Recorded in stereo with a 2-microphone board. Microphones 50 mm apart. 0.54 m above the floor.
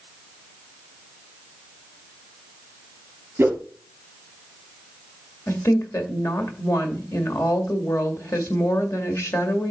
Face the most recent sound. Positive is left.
turn(degrees=70)  # may be behind; listen again after turning